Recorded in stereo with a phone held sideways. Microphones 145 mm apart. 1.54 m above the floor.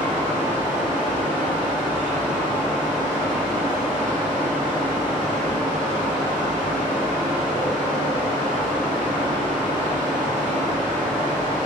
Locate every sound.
0.0 s a fan: 15° left (ahead or behind), 1.7 m